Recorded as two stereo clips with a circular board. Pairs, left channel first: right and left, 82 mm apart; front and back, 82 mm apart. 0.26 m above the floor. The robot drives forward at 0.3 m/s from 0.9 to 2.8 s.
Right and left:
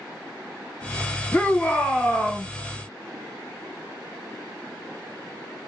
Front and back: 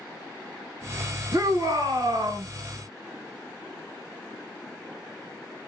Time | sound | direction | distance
1.3 | a shout | 160° right | 2 m